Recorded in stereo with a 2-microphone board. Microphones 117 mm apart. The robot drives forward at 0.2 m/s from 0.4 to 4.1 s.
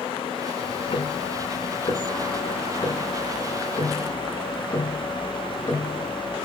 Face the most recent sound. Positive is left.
turn(degrees=25)  # may be behind; listen again after turning